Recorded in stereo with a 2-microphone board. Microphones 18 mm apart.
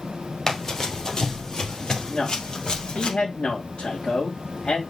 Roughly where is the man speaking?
Left.